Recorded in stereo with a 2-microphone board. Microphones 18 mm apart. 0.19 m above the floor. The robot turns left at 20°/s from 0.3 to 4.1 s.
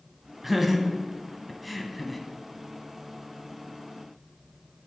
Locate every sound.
0.4 s laughter: 10° right (ahead or behind), 1.0 m; by 2.2 s 5° left (ahead or behind), 1.0 m